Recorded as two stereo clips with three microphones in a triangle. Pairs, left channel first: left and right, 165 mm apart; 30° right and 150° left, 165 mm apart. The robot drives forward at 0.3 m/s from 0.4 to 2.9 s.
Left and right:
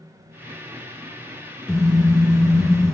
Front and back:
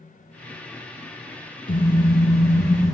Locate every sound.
1.7 s a car horn: straight ahead, 4.5 m